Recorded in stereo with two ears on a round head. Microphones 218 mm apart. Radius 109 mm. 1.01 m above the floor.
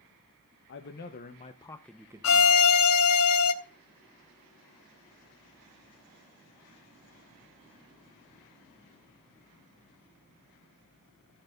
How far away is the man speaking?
About 0.9 m.